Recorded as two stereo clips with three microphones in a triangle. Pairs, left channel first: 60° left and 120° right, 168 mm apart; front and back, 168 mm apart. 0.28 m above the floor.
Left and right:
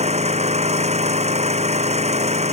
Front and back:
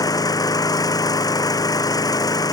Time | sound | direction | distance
0.0 | an engine running | 70° right | ?